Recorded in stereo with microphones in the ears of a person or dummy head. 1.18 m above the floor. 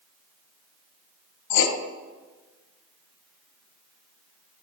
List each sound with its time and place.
1.5 s writing: 65° left (ahead or behind), 0.7 m